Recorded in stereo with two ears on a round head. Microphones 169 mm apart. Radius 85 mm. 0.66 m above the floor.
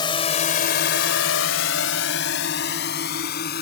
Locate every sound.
0.0 s a drone: 25° left (ahead or behind); by 3.6 s 55° left (ahead or behind)